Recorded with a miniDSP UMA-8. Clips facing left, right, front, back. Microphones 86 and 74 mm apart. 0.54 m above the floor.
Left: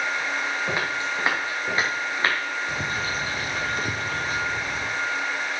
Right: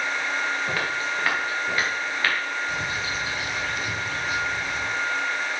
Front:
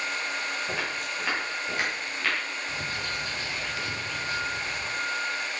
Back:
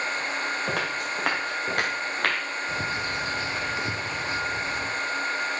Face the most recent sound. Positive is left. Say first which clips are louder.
# left 1 dB, back 6 dB
turn(degrees=125)